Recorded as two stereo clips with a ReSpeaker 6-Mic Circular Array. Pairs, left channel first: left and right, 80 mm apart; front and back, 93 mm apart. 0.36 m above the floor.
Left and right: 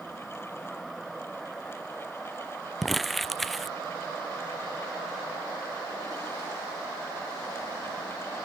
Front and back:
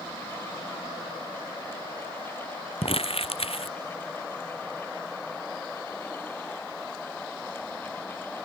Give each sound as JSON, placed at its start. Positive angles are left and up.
{"t": 2.8, "sound": "crumpling", "azimuth_deg": 0}